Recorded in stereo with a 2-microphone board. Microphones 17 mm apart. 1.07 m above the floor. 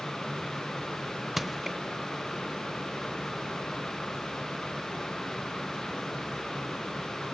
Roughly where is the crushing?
Centre.